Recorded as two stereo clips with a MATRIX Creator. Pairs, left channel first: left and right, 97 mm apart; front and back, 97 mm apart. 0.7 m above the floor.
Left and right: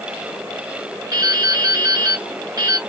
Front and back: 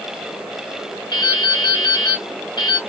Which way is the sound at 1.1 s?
40° right.